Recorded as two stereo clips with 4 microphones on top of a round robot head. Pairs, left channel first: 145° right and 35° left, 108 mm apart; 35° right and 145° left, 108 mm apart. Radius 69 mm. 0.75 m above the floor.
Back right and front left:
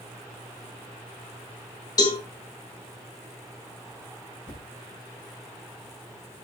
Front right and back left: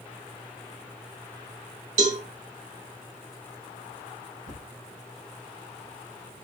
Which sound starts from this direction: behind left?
A thud, at 4.5 s.